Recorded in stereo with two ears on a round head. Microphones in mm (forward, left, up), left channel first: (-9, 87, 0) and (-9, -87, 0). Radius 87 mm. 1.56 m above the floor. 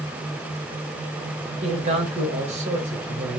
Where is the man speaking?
35° right (ahead or behind), 1.1 m.